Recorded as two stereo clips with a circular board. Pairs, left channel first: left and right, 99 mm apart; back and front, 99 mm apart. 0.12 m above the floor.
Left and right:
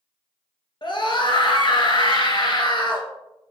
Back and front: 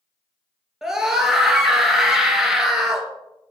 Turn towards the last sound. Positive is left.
turn(degrees=85)